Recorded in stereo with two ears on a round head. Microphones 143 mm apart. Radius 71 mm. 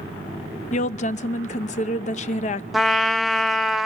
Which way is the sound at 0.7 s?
45° left (ahead or behind).